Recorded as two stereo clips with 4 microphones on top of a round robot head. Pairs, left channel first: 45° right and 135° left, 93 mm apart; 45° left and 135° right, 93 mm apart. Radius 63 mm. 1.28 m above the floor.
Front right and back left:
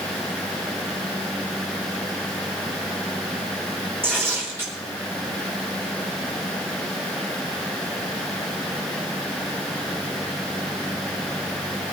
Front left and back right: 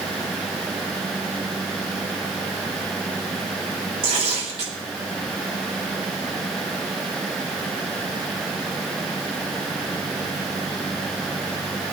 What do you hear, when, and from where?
4.0 s tearing paper: 155° right, 3 m